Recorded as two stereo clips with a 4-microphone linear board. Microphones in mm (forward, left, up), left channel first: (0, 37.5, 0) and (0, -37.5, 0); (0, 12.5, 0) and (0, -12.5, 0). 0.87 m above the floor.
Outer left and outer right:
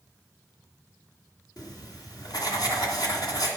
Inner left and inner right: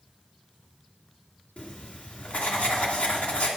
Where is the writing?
60° left (ahead or behind), 2 m.